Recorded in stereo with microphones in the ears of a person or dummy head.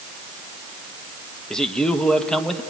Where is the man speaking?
Centre (ahead or behind), 1.2 m.